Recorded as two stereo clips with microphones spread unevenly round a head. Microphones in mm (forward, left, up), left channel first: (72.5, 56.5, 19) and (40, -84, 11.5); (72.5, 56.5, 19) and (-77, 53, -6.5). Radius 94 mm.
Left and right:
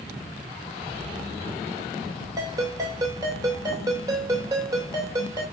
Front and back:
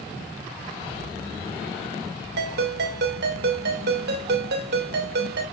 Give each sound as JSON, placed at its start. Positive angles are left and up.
{"t": 2.4, "sound": "a ringtone", "azimuth_deg": -175, "distance_m": 2.5}